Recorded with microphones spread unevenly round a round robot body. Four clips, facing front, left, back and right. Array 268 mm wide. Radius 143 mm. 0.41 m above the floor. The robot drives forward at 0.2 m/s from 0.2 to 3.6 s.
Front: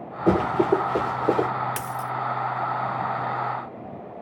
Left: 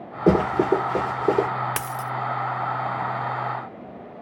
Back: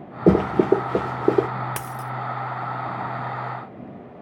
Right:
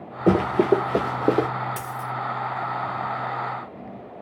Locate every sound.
0.3 s running footsteps: 170° left, 0.5 m; by 1.5 s 145° right, 1.1 m
1.8 s a dropped coin: 75° left, 0.7 m; by 2.1 s 85° left, 0.7 m